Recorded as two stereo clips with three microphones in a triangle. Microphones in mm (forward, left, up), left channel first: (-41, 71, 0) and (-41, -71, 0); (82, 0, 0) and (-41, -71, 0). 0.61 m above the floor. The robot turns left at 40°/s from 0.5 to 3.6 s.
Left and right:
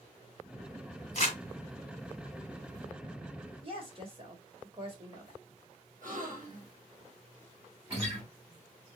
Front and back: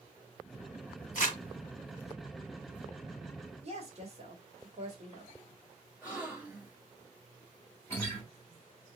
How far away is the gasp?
About 2 m.